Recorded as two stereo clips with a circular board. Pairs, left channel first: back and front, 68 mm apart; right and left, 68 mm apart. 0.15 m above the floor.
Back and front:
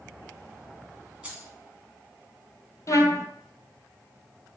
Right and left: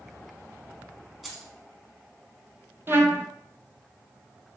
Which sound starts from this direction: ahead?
Keys jangling, at 1.2 s.